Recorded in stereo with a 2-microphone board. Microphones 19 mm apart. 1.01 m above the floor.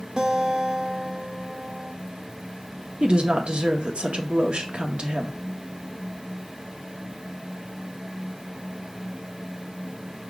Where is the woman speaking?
70° right (ahead or behind), 0.9 m.